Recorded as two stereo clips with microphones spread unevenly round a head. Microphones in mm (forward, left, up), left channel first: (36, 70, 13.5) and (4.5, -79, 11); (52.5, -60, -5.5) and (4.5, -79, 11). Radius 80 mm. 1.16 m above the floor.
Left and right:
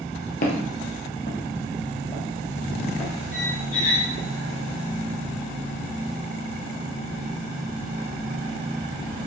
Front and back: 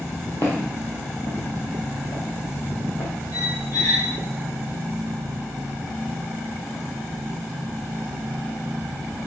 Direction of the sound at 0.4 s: 80° left.